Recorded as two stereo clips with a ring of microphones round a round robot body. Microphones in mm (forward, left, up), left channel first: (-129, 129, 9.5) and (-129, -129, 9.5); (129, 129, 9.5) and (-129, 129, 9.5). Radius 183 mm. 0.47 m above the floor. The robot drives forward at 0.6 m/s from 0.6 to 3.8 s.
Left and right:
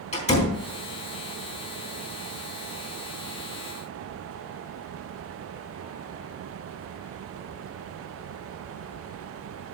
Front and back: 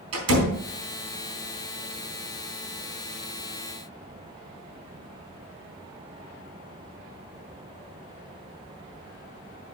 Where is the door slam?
155° left, 4 m.